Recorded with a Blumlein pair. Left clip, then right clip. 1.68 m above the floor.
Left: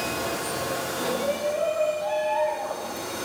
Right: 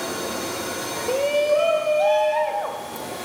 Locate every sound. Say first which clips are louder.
1.1 s a shout: right 9 dB; 65° right, 1.6 m; by 3.1 s 50° right, 2.5 m